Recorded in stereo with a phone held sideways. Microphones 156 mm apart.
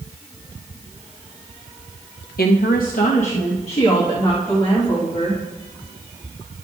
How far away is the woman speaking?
About 0.6 m.